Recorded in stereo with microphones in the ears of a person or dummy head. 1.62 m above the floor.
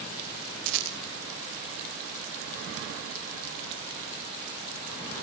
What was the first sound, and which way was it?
A rattle, 75° right (ahead or behind).